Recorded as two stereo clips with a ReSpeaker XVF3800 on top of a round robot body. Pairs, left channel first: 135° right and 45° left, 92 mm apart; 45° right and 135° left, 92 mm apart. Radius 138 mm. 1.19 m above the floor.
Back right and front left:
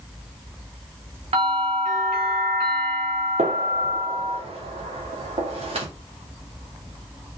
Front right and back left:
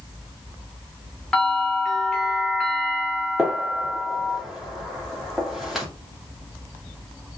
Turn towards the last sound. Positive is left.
turn(degrees=45)